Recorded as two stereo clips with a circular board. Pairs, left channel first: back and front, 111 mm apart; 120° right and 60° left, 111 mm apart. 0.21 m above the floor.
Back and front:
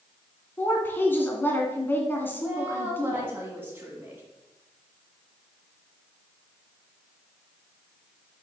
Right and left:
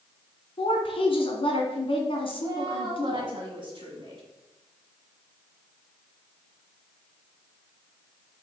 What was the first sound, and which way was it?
A woman speaking, 115° right.